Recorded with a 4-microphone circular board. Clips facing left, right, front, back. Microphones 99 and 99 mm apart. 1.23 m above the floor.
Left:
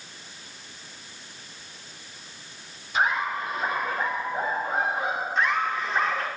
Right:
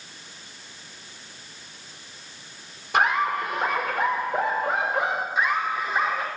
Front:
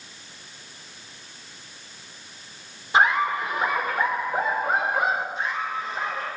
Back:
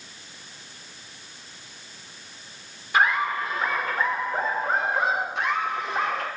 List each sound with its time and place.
2.9 s laughter: 70° right, 4 m; by 5.2 s 85° right, 5.5 m
5.3 s laughter: 170° right, 4.5 m